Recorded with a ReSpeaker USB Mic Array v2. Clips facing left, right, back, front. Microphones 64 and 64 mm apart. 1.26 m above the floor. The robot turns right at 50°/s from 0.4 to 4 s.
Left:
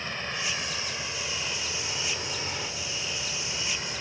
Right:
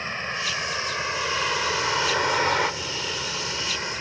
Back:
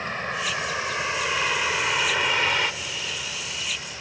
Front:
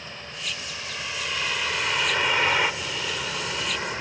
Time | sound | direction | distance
0.0 | a vehicle | 150° right | ?